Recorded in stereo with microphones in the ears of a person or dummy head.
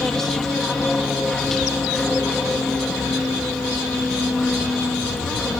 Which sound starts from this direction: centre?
An aircraft, at 0.0 s.